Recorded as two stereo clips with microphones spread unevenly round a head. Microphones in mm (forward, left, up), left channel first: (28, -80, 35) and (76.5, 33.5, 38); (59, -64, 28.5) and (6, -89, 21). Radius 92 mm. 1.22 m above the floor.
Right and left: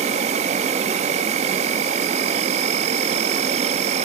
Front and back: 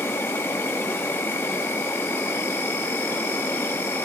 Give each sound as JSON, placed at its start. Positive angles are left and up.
{"t": 0.0, "sound": "an insect", "azimuth_deg": 70, "distance_m": 0.8}